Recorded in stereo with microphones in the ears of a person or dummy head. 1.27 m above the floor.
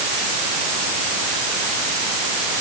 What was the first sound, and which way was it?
Only background noise.